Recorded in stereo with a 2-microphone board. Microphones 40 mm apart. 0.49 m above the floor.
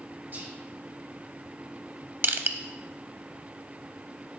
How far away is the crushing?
About 0.6 m.